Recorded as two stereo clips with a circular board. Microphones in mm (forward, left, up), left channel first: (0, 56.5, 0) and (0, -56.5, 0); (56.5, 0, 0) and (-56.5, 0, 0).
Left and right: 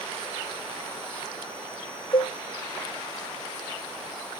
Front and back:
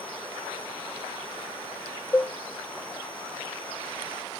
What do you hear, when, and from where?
2.1 s a cowbell: 70° left